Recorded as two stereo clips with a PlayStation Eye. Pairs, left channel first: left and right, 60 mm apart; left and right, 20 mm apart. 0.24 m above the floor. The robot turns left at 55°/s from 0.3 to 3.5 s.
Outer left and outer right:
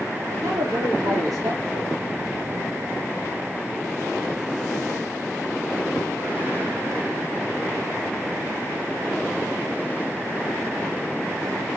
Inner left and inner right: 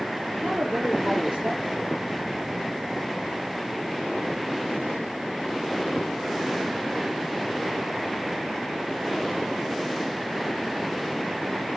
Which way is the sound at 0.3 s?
45° right.